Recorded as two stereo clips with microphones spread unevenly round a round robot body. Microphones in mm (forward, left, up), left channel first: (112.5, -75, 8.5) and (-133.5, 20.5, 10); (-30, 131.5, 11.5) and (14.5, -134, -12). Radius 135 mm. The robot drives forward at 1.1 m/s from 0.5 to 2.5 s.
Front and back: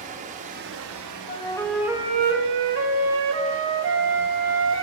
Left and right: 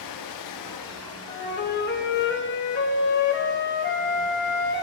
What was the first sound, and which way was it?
Running water, 95° left.